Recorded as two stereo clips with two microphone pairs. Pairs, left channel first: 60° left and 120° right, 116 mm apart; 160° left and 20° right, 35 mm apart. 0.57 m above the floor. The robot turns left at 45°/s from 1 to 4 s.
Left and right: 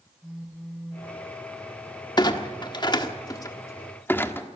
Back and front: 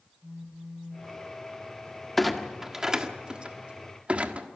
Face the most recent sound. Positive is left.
turn(degrees=-5)